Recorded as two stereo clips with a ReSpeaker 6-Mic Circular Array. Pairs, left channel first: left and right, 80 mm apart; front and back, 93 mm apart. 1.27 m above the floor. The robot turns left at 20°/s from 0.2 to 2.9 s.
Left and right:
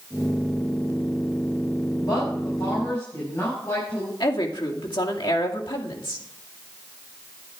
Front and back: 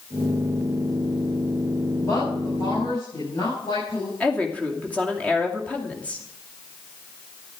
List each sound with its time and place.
2.0 s a woman speaking: 60° left, 6.5 m; by 4.1 s 40° left, 6.5 m
4.2 s a woman speaking: 75° left, 2.5 m